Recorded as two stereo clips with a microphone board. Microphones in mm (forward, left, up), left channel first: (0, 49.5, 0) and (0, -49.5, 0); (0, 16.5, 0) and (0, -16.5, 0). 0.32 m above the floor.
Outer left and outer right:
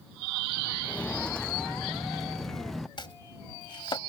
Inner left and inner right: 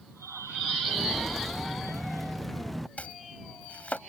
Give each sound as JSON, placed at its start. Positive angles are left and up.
{"t": 0.8, "sound": "footsteps", "side_deg": 10}
{"t": 3.0, "sound": "chopping", "side_deg": 55}